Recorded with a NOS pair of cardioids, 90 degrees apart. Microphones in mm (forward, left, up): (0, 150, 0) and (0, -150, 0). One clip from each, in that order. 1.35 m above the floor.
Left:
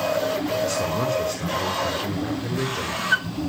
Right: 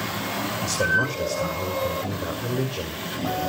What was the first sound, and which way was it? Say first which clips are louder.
A man speaking: right 2 dB; 5° right.